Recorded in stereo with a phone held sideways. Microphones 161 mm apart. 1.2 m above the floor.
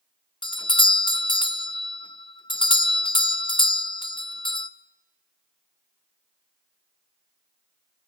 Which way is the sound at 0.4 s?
30° left (ahead or behind).